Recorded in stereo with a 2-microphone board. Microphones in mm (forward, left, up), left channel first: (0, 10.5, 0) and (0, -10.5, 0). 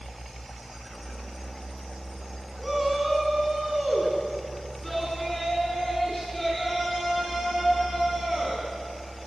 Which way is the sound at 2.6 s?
5° right (ahead or behind).